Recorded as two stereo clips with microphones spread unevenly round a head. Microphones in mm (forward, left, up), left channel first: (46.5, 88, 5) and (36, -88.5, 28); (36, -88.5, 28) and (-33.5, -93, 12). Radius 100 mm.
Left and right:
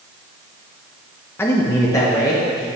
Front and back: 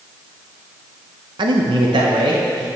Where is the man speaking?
165° left, 0.6 m; by 2.7 s 160° left, 1.3 m.